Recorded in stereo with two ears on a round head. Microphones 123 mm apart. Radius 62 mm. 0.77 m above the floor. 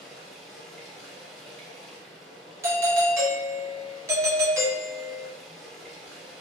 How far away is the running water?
About 1.3 m.